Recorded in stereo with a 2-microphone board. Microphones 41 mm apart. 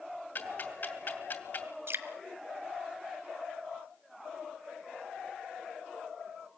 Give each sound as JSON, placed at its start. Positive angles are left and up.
{"t": 0.3, "sound": "ticking", "side_deg": 45, "distance_m": 2.5}
{"t": 1.9, "sound": "dripping", "side_deg": -65, "distance_m": 1.5}